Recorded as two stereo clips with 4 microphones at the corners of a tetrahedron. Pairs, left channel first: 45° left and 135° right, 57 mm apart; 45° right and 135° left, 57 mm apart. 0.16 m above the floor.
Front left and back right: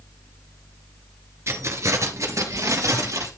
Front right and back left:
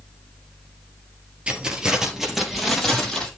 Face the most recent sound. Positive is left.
turn(degrees=-130)